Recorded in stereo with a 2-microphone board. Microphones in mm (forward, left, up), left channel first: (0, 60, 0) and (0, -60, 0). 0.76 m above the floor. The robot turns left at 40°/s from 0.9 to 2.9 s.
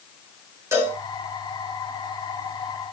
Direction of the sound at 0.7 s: 20° right (ahead or behind).